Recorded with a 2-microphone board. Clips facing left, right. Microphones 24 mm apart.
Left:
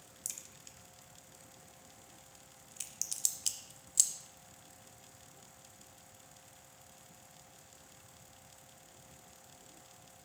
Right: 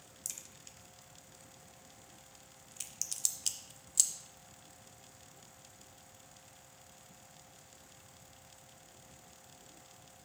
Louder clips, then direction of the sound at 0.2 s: Even; centre (ahead or behind).